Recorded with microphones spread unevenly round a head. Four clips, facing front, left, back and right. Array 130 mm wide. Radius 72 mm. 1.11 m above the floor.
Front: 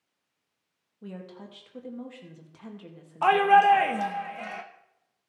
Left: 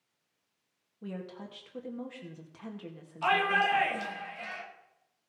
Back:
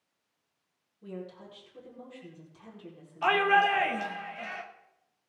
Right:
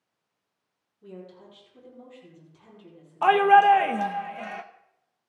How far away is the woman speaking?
About 1.9 m.